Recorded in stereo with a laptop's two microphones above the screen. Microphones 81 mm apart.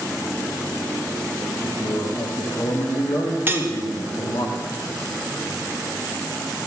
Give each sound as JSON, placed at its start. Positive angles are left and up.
{"t": 1.6, "sound": "a man speaking", "side_deg": 70, "distance_m": 1.3}
{"t": 3.5, "sound": "cutlery clinking", "side_deg": -25, "distance_m": 0.8}